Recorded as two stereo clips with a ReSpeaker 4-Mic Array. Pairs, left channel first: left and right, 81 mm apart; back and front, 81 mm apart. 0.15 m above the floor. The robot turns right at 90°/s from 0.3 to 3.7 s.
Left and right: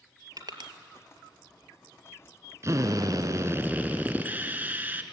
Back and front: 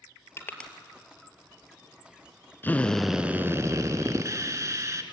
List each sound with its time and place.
0.4 s crushing: 125° right, 1.4 m; by 0.7 s 95° right, 1.4 m
2.6 s a drill: 125° right, 1.1 m; by 5.0 s 30° right, 1.1 m